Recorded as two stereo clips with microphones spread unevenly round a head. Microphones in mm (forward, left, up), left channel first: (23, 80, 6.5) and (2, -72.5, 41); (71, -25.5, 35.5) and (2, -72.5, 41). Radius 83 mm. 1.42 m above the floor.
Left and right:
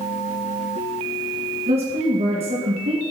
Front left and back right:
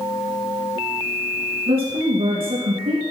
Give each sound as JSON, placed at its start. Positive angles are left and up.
{"t": 1.7, "sound": "a woman speaking", "azimuth_deg": -155, "distance_m": 2.5}